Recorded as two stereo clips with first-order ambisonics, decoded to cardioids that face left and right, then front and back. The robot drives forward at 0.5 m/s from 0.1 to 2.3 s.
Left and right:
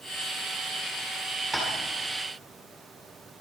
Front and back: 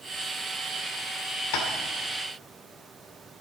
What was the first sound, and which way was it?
Tapping, straight ahead.